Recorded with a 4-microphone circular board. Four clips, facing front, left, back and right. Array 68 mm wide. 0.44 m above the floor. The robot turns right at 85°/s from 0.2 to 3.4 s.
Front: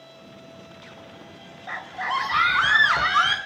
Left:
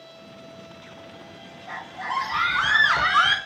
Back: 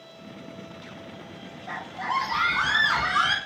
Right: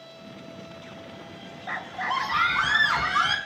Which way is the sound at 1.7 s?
65° right.